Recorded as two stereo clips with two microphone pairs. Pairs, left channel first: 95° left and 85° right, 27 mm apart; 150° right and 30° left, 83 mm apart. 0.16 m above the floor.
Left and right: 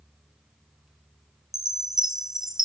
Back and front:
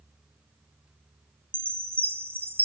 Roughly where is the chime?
Ahead right.